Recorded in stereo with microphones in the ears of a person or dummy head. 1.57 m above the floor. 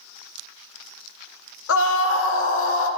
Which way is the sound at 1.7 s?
80° left.